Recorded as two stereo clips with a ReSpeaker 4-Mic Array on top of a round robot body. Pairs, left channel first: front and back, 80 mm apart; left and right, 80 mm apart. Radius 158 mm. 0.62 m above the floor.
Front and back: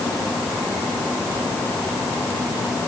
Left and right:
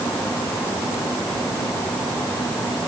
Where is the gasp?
I don't hear a gasp.